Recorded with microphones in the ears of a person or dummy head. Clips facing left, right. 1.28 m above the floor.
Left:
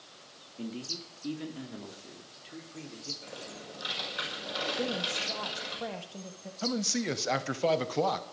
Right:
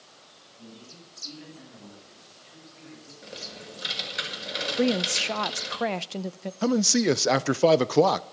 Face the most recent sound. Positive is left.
turn(degrees=-60)  # may be behind; listen again after turning